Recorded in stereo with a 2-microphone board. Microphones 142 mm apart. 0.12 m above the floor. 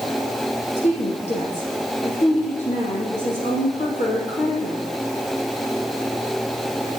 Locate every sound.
0.8 s a woman speaking: 55° left (ahead or behind), 3.5 m